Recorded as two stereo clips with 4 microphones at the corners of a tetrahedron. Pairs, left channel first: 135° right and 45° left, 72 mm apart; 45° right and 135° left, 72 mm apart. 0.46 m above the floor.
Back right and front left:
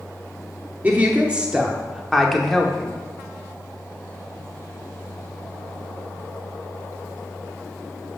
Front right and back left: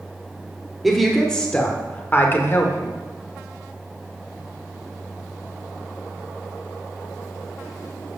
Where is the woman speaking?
50° left, 1.1 m; by 3.0 s 60° right, 1.4 m.